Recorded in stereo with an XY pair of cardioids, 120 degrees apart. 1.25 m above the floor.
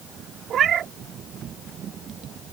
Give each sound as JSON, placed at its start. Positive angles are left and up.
{"t": 0.5, "sound": "a cat meowing", "azimuth_deg": -50}